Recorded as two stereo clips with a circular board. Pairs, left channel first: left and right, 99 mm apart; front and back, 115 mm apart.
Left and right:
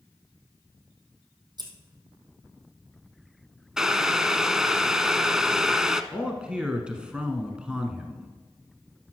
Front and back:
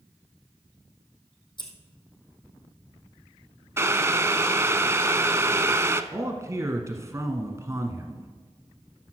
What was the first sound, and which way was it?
Scissors, 45° right.